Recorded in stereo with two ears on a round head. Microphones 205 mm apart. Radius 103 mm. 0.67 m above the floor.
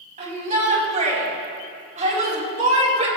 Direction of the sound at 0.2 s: 35° right (ahead or behind).